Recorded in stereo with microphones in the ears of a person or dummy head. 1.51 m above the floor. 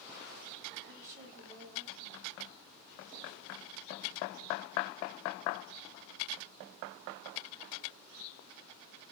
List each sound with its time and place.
0.8 s a woman speaking: 45° right (ahead or behind), 1.8 m